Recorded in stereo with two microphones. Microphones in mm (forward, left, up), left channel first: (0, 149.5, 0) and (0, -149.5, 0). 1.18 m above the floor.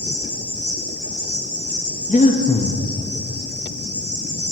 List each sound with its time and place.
0.0 s an insect: 80° left, 1.6 m
2.1 s breathing: 25° left (ahead or behind), 0.5 m